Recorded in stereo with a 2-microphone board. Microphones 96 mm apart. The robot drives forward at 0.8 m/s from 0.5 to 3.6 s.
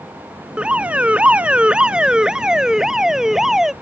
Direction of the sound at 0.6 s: 10° right (ahead or behind).